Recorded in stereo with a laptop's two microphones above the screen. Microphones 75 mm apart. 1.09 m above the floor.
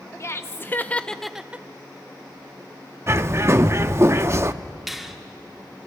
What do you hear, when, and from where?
0.2 s laughter: 35° left (ahead or behind), 1.0 m; by 1.7 s 25° right (ahead or behind), 0.5 m
3.1 s a bird: 35° right (ahead or behind), 0.6 m
4.9 s a finger snap: centre (ahead or behind), 2.5 m